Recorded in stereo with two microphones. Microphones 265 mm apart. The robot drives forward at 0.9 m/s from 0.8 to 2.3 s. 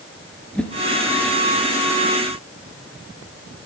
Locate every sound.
0.6 s a whoosh: 5° left (ahead or behind), 1.3 m